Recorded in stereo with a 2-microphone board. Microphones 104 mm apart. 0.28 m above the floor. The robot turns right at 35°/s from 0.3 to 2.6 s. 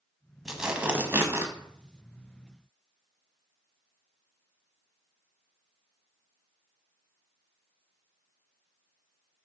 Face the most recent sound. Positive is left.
turn(degrees=-105)